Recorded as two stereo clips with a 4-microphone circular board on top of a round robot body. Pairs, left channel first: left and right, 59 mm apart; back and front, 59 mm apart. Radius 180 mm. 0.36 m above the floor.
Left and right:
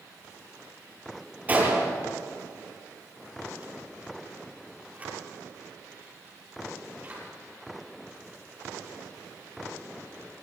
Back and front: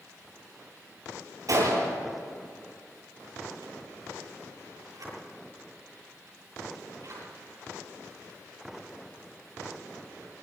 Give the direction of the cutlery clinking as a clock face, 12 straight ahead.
No cutlery clinking in this recording.